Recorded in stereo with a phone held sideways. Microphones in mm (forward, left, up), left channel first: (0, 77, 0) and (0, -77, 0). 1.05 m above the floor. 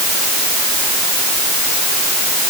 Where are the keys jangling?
I don't hear keys jangling.